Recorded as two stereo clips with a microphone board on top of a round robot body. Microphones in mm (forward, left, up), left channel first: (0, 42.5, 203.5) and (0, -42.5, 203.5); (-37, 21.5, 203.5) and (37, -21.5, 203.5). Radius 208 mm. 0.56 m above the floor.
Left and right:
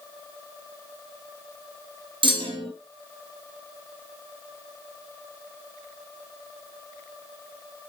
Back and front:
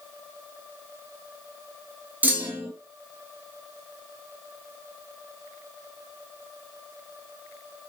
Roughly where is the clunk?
Right.